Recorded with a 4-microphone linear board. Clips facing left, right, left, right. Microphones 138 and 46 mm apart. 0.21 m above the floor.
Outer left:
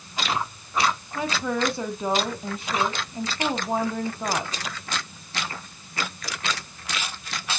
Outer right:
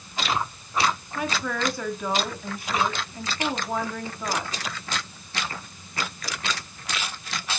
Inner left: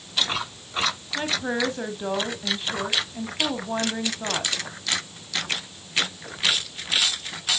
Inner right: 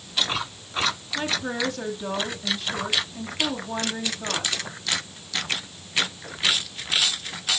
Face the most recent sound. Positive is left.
turn(degrees=20)  # may be behind; listen again after turning